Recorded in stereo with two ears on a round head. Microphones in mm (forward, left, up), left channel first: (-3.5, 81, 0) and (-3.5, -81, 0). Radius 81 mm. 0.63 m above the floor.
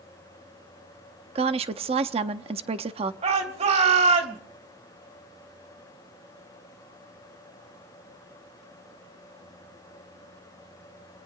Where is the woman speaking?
35° right (ahead or behind), 0.7 m.